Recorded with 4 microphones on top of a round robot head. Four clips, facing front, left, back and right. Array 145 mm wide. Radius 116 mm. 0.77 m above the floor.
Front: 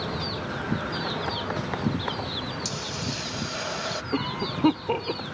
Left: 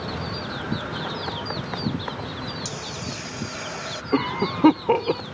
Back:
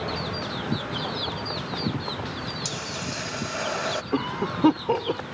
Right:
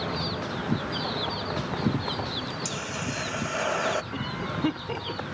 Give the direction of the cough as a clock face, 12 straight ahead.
9 o'clock.